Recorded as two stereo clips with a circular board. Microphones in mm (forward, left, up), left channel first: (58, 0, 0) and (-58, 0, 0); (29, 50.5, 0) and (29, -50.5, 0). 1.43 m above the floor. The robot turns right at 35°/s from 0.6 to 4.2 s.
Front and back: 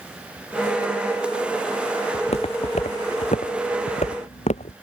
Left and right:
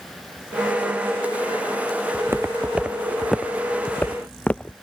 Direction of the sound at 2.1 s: 30° right.